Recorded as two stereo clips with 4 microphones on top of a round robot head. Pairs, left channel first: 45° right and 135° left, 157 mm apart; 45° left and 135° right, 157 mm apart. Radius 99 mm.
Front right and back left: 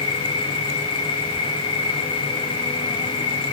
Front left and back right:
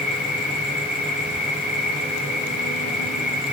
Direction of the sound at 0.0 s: 15° left.